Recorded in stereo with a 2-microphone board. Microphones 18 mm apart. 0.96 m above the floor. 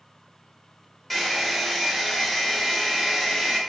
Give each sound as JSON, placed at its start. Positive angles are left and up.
{"t": 1.1, "sound": "a hair dryer", "side_deg": 0, "distance_m": 0.7}